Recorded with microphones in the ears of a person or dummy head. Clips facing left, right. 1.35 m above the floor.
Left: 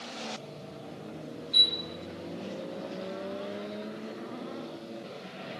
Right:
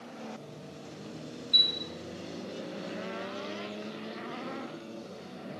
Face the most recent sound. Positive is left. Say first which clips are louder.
# left 1 dB
turn(degrees=-25)  # may be behind; listen again after turning